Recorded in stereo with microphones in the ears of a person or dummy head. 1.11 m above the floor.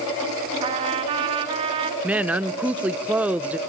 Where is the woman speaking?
5° right (ahead or behind), 0.5 m.